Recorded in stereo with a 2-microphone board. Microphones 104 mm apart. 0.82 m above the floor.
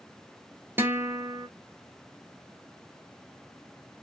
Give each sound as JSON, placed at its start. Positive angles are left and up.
{"t": 0.8, "sound": "a guitar", "side_deg": -20, "distance_m": 0.6}